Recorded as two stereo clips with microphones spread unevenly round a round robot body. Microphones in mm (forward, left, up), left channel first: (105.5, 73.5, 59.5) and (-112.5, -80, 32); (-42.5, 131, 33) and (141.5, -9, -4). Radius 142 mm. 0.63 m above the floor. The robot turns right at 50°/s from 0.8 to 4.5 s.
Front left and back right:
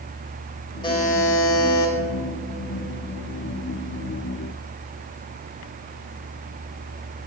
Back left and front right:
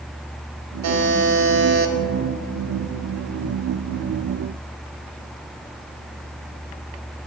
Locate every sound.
0.8 s a buzzer: 40° right, 1.4 m; by 1.9 s 15° left, 1.4 m